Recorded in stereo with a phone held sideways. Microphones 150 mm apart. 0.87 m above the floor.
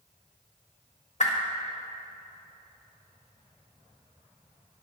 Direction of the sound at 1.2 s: 50° left (ahead or behind).